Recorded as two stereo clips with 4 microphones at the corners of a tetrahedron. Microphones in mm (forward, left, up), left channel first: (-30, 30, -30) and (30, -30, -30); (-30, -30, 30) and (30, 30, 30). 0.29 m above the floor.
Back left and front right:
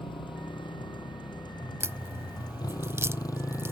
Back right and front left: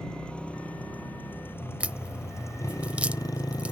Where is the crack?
20° right.